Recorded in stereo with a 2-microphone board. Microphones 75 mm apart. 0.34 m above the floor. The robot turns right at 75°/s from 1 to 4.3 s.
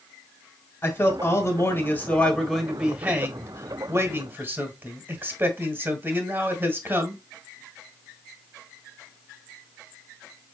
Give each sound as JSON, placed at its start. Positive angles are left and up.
{"t": 0.8, "sound": "a man speaking", "azimuth_deg": 60, "distance_m": 1.4}